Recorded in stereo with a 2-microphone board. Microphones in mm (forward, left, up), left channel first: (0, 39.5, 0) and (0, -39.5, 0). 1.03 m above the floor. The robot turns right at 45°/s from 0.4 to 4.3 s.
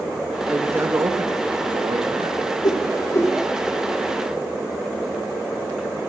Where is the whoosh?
65° left (ahead or behind), 2.5 m; by 3.4 s 35° left (ahead or behind), 2.5 m.